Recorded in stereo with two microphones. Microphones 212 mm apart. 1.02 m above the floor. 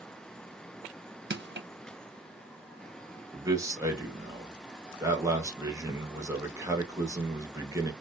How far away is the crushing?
About 0.6 m.